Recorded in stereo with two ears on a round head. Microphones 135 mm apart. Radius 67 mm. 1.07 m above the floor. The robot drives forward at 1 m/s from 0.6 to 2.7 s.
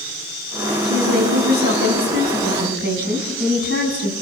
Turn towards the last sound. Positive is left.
turn(degrees=-80)